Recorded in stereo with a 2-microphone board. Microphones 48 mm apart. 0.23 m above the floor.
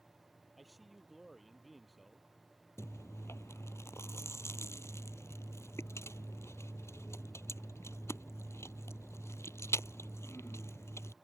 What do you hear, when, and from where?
0.6 s a man speaking: 5° right (ahead or behind)
2.8 s chewing: 75° left (ahead or behind)